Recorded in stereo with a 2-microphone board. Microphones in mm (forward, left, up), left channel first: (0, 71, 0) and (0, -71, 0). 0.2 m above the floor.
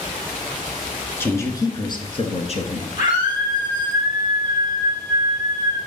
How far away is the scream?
About 6.5 m.